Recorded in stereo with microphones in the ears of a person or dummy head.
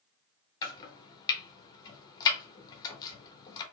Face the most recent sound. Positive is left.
turn(degrees=25)  # may be behind; listen again after turning